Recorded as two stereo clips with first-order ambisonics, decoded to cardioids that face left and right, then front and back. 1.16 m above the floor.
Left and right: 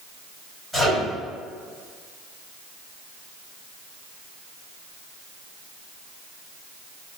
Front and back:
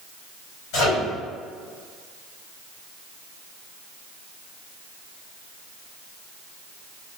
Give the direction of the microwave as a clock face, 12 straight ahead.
12 o'clock.